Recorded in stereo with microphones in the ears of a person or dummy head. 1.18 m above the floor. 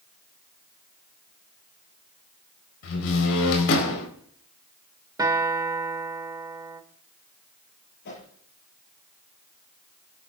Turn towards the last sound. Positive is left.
turn(degrees=65)  # may be behind; listen again after turning